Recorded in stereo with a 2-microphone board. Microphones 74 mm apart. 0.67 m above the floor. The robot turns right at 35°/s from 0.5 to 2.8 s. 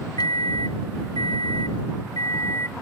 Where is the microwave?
70° left; by 2.7 s 145° left.